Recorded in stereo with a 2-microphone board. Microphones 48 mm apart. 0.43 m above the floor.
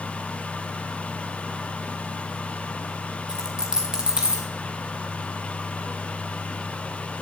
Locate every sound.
3.3 s a dropped coin: 15° right (ahead or behind), 1.7 m